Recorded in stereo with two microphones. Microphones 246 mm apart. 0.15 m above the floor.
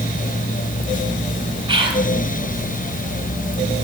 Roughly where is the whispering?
Right.